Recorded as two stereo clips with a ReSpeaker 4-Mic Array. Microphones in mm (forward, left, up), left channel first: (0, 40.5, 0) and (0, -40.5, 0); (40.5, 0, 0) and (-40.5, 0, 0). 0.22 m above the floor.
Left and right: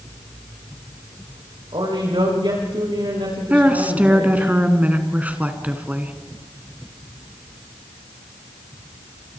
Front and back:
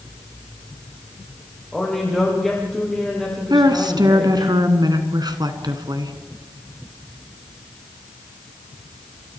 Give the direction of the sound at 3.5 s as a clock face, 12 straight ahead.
5 o'clock.